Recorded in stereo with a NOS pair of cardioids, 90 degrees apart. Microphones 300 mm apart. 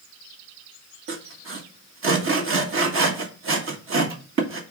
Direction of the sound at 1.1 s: 45° right.